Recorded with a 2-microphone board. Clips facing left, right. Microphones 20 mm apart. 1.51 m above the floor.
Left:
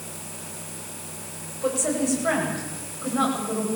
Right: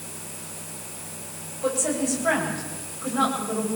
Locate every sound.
1.6 s a woman speaking: 5° left (ahead or behind), 9 m